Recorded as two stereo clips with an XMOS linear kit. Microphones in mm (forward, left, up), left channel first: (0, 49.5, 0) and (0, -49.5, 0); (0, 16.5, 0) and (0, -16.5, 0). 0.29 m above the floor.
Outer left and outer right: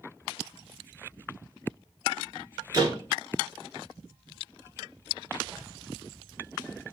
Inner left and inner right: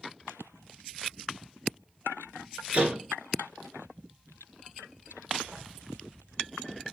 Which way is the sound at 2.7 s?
40° right (ahead or behind).